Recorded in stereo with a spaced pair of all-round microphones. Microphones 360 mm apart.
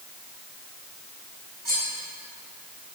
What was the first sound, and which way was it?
Cutlery clinking, 65° right (ahead or behind).